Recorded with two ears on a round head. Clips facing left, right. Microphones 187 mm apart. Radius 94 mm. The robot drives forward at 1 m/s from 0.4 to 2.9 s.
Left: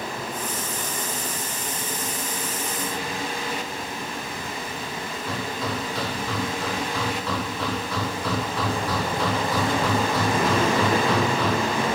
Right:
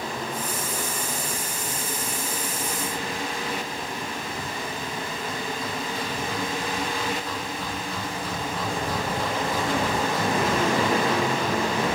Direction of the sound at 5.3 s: 60° left (ahead or behind).